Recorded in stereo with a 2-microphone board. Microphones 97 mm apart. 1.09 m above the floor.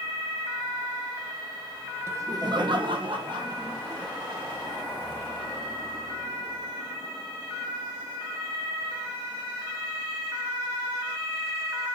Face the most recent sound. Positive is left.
turn(degrees=-55)  # may be behind; listen again after turning